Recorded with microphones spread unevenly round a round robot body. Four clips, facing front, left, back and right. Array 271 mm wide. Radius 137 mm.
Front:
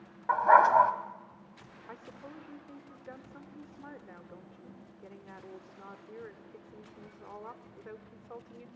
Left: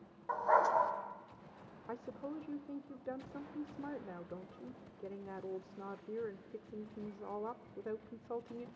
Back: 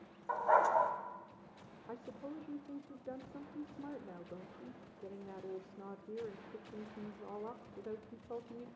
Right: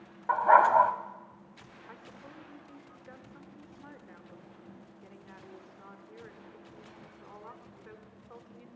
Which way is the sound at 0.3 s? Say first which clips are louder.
Right 9 dB, front 9 dB; 50° right.